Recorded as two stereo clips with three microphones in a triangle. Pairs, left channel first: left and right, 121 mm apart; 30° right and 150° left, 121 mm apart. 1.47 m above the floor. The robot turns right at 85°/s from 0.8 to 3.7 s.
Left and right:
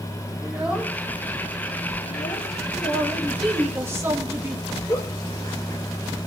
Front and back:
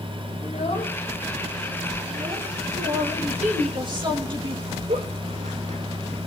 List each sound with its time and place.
0.4 s a child speaking: 10° right, 3 m; by 2.5 s 135° left, 3 m
2.8 s a man speaking: 120° left, 3 m; by 4.8 s 160° right, 3 m
4.9 s a giggle: 150° left, 4 m